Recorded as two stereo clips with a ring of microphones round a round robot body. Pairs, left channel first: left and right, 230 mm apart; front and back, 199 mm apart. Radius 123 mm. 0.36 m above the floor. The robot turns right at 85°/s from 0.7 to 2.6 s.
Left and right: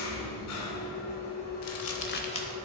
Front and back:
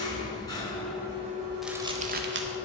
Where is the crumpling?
90° left, 0.7 m; by 2.5 s 170° left, 0.7 m.